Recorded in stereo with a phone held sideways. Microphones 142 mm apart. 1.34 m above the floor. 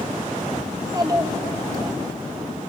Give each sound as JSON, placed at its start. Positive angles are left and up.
{"t": 0.7, "sound": "a child speaking", "side_deg": -25, "distance_m": 1.4}